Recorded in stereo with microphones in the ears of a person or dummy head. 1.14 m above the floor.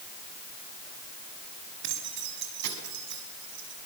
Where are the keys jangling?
65° right (ahead or behind), 5 m.